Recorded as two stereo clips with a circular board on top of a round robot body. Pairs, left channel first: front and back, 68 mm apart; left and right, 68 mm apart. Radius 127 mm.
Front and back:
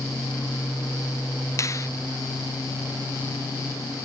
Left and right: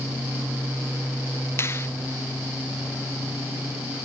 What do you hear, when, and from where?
1.6 s a finger snap: 40° left, 0.9 m